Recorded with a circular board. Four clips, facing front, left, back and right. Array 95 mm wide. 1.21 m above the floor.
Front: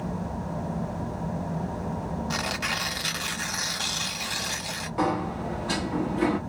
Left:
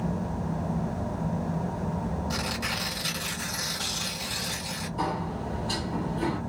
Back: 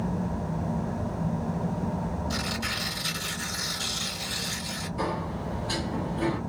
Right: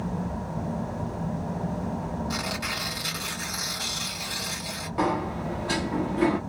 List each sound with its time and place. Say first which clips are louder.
2.3 s tearing paper: even, front 2 dB; 10° right, 1.7 m
5.0 s a sliding door: right 5 dB, front 5 dB; 50° right, 1.0 m